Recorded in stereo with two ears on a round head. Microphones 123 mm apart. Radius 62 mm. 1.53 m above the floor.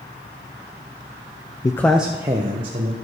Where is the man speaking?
30° left (ahead or behind), 0.8 m; by 2.9 s 40° right (ahead or behind), 2.0 m.